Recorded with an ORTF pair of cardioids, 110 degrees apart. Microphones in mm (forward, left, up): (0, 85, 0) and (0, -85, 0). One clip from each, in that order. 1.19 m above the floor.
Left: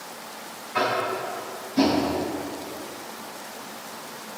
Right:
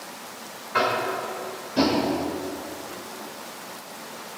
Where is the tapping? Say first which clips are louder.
Right 1 dB; 35° right, 3 m.